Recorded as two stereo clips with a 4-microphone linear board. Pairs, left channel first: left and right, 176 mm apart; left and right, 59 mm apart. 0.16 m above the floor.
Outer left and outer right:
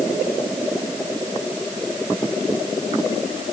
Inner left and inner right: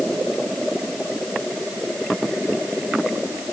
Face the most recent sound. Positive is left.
No sound to turn to.